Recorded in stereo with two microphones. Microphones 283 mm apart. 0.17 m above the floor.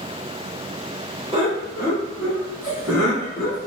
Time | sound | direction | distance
1.3 | laughter | 20° right (ahead or behind) | 1.3 m